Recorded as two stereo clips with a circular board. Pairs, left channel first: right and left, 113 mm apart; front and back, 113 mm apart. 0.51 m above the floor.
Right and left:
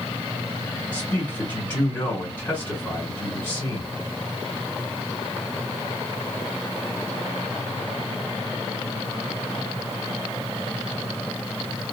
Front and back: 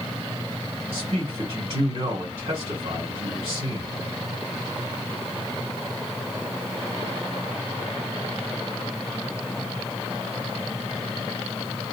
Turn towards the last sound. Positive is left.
turn(degrees=-160)